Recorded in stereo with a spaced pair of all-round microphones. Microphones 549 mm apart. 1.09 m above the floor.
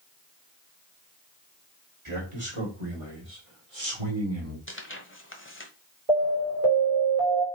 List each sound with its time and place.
2.0 s a man speaking: 60° right (ahead or behind), 4 m; by 4.6 s 80° right, 3 m
4.7 s tearing paper: 20° left (ahead or behind), 1.4 m
6.1 s an alarm: 80° right, 4.5 m